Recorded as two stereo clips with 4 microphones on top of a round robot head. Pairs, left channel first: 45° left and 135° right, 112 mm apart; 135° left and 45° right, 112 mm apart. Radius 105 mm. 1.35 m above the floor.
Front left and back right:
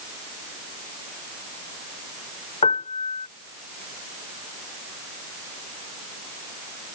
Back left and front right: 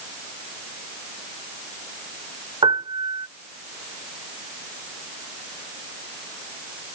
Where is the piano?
10° left.